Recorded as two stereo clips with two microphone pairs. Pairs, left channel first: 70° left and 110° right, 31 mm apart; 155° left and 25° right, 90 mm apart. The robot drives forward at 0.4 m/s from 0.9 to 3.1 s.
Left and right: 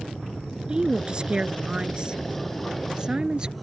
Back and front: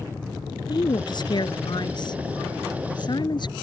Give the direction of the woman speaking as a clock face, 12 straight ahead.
6 o'clock.